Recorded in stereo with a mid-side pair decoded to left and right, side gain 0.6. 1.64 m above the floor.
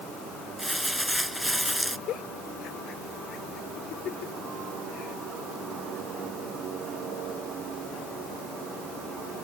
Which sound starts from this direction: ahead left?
A giggle, at 2.1 s.